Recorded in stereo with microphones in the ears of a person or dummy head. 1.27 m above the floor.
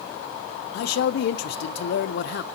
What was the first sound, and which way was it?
A man speaking, 65° left (ahead or behind).